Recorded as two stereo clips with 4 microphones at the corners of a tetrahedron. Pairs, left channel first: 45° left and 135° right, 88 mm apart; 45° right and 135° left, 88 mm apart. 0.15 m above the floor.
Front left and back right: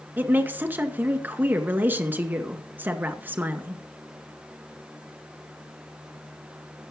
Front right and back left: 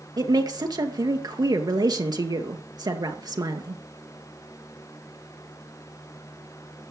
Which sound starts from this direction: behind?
A woman speaking, at 0.2 s.